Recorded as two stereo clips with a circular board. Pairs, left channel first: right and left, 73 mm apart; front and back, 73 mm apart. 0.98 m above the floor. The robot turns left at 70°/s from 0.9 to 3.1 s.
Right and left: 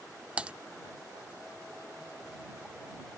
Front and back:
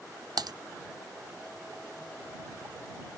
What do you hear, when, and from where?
0.4 s typing on a keyboard: 160° left